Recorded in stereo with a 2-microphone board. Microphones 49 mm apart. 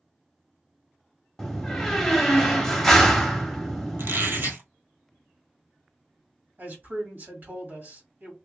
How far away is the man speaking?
About 1.9 m.